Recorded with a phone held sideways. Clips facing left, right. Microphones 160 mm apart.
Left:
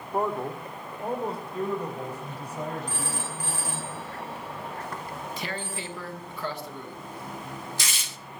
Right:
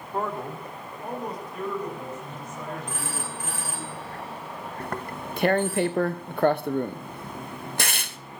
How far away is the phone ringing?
About 5.5 m.